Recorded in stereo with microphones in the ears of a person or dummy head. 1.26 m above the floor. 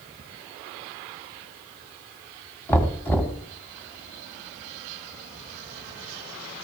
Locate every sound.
2.7 s knocking: 10° left (ahead or behind), 1.5 m